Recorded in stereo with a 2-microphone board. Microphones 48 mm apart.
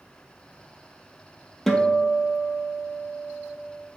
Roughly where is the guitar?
Centre.